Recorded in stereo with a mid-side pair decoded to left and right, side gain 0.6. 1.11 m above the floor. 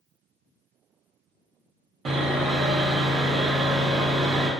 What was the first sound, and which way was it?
Sawing, 40° right.